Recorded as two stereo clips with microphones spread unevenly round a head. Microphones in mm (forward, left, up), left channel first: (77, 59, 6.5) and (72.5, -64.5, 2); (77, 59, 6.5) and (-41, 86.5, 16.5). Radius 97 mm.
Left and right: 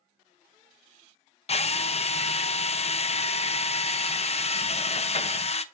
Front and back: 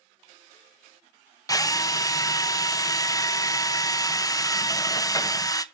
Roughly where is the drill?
Ahead left.